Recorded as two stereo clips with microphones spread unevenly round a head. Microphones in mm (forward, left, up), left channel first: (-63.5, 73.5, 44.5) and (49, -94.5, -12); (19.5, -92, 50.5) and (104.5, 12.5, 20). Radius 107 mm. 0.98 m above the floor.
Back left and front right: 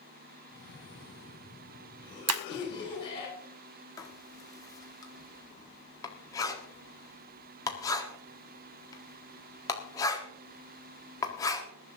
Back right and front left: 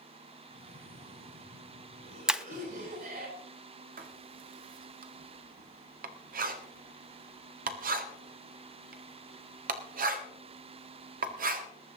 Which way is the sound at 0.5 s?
55° left.